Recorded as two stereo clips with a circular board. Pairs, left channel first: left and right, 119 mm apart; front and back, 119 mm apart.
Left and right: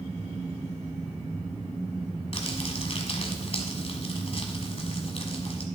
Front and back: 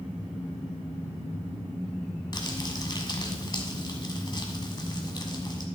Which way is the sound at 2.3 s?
55° left.